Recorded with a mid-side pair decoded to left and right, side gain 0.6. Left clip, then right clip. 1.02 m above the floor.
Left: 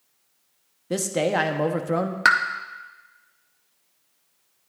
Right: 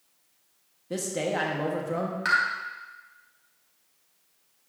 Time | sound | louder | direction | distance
0.9 | a man speaking | left 6 dB | 40° left | 1.3 m
2.2 | a pop | left 6 dB | 55° left | 1.1 m